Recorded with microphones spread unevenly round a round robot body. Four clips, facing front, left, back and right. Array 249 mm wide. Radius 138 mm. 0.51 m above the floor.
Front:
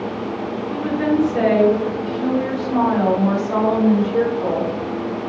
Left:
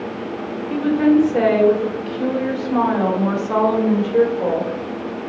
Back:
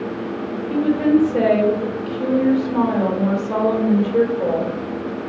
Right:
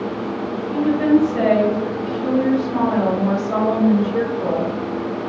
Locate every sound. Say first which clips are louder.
0.7 s a woman speaking: left 1 dB, back 4 dB; 145° left, 1.6 m